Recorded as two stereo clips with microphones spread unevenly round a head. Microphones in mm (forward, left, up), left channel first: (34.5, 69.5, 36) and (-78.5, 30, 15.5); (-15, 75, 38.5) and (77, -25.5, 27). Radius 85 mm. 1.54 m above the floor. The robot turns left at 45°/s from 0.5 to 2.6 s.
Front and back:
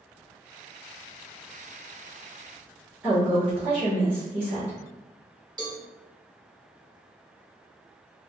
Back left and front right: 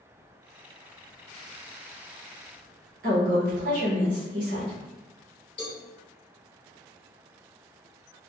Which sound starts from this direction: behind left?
A cowbell, at 5.6 s.